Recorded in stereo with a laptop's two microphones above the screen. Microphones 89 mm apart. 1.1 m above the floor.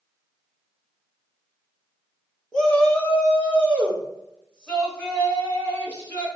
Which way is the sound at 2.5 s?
10° left (ahead or behind).